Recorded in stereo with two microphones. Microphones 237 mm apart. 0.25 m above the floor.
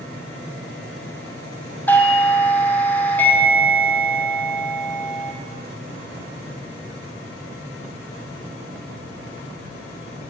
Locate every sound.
1.9 s a doorbell: 5° left (ahead or behind), 1.9 m